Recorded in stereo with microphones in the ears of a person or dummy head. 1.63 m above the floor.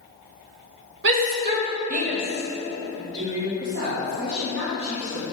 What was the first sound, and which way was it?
A shout, 70° right (ahead or behind).